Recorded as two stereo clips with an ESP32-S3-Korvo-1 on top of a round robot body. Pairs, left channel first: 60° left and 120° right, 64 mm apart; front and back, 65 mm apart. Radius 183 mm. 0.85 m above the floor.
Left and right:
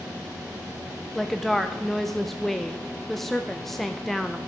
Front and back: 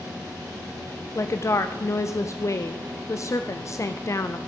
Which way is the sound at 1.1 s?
25° right.